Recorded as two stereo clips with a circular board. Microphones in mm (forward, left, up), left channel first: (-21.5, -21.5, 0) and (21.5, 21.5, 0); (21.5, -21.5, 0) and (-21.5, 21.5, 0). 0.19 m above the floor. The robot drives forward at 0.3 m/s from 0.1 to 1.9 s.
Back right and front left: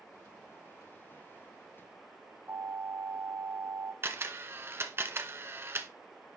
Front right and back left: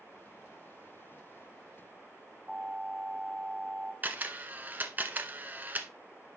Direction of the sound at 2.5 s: 65° left.